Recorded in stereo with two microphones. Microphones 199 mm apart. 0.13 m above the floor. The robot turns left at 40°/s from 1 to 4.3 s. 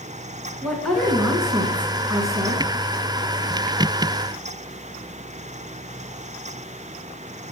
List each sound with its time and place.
0.6 s a woman speaking: 5° left (ahead or behind), 1.4 m; by 2.6 s 20° right (ahead or behind), 1.4 m